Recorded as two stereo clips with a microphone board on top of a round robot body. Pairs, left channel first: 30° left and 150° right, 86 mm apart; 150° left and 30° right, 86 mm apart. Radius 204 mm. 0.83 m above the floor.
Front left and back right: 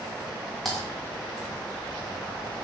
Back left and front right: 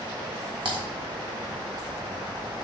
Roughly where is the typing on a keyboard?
Ahead right.